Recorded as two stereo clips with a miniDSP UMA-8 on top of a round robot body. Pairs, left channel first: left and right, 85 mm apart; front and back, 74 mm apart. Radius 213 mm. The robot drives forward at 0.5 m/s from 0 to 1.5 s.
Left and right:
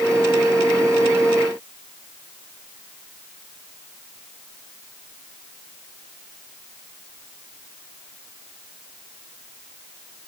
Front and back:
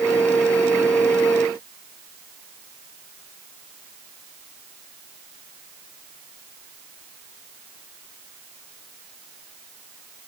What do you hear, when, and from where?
Only background noise.